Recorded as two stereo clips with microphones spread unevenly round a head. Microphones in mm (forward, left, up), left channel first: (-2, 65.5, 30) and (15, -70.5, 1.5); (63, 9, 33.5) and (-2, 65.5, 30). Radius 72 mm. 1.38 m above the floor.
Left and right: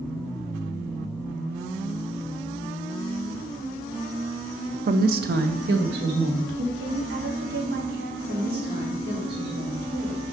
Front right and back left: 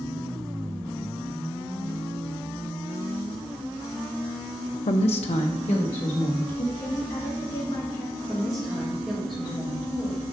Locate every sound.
4.9 s a woman speaking: 40° right, 0.6 m; by 6.7 s 90° right, 2.5 m
6.8 s a woman speaking: 95° right, 2 m
8.3 s a woman speaking: 135° right, 3.5 m